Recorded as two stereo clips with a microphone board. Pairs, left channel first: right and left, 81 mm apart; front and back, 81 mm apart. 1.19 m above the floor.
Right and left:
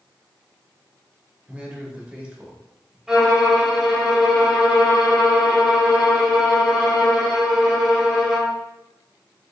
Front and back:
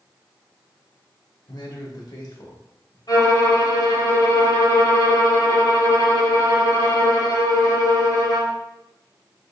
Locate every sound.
1.5 s a man speaking: 20° left, 1.5 m
3.1 s a violin: 10° left, 1.9 m